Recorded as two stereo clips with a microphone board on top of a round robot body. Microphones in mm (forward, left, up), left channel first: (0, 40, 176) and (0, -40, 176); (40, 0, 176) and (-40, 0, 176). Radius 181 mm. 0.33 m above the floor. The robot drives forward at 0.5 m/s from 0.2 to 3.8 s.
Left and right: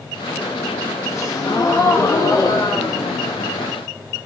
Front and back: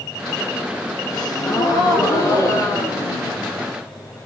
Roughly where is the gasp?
Ahead left.